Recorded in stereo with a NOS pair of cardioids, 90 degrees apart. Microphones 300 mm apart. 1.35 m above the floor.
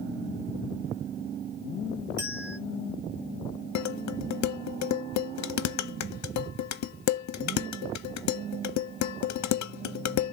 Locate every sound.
2.2 s a bell: 35° right, 4 m
3.8 s dishes clattering: 70° left, 1.0 m